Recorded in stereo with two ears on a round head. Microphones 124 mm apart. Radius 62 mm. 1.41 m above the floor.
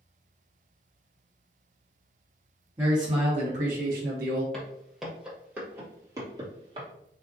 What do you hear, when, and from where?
2.8 s a man speaking: 20° right (ahead or behind), 0.9 m; by 4.4 s 80° right, 1.2 m
4.5 s footsteps: 5° left (ahead or behind), 1.7 m; by 6.9 s 35° right (ahead or behind), 1.8 m